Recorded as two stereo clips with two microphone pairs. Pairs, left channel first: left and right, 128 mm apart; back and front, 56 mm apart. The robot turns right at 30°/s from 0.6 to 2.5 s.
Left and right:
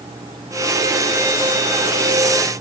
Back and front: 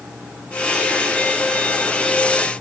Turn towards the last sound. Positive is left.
No sound to turn to.